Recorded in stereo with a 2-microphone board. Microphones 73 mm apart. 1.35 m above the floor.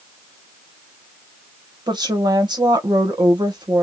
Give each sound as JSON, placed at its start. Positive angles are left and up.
{"t": 1.9, "sound": "a woman speaking", "side_deg": -80, "distance_m": 1.5}